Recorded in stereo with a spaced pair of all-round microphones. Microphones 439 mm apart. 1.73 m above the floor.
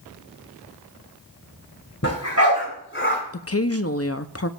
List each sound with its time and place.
2.0 s a dog barking: 40° left (ahead or behind), 6 m; by 3.2 s 25° left (ahead or behind), 6 m
3.3 s a woman speaking: 35° left (ahead or behind), 0.6 m